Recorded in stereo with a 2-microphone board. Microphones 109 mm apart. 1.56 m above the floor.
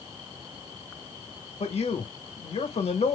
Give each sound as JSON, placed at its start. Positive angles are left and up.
{"t": 1.6, "sound": "a man speaking", "side_deg": 75, "distance_m": 1.6}